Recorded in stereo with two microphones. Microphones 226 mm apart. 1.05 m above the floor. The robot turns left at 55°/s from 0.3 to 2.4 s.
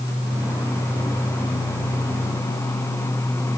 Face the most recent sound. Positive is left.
No sound to turn to.